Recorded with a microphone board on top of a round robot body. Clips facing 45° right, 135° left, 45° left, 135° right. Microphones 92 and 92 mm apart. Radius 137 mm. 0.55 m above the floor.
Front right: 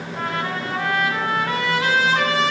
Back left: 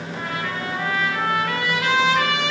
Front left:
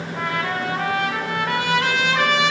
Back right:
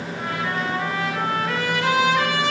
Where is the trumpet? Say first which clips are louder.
Front right 3 dB, front left 2 dB; 15° left, 1.1 m.